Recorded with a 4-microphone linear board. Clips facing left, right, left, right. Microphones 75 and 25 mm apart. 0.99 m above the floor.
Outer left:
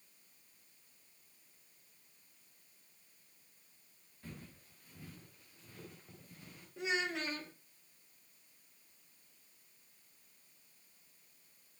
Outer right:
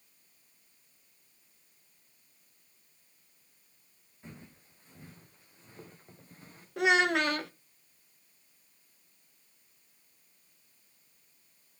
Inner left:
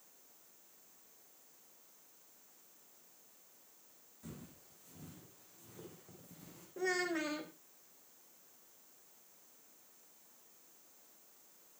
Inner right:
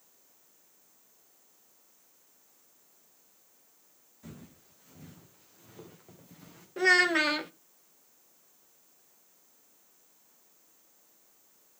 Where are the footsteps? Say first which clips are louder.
Outer right 1 dB, inner right 3 dB; 20° right (ahead or behind), 5.5 m; by 6.7 s 35° right (ahead or behind), 6.5 m.